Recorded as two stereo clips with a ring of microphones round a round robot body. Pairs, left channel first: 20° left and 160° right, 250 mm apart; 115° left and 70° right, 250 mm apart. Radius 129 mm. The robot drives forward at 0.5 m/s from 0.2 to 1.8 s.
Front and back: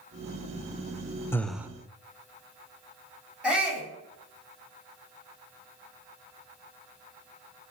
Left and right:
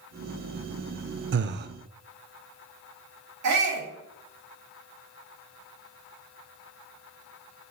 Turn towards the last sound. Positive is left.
turn(degrees=-70)